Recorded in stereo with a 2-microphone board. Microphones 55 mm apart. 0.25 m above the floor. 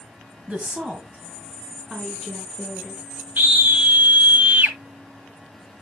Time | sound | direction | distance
0.5 | a woman speaking | 25° right (ahead or behind) | 1.2 m
3.4 | a scream | 35° right (ahead or behind) | 1.5 m